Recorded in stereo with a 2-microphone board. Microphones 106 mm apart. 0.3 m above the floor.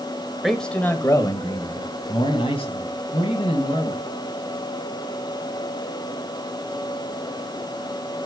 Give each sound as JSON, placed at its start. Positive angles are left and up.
{"t": 0.4, "sound": "a man speaking", "side_deg": 0, "distance_m": 1.0}